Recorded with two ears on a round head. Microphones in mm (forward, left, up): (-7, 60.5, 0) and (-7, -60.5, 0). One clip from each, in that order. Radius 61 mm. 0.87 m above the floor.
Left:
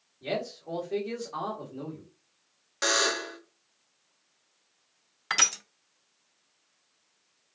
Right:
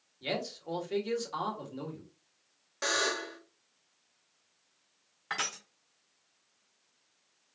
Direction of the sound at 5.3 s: 75° left (ahead or behind).